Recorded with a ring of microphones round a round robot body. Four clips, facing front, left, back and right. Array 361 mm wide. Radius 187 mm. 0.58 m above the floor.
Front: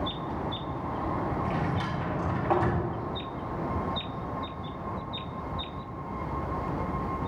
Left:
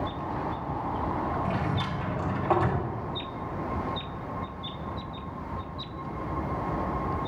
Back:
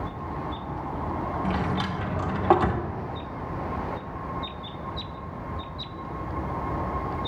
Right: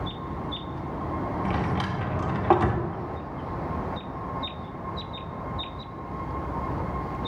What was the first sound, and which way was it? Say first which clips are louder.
A drawer: right 2 dB, back 3 dB; 140° right.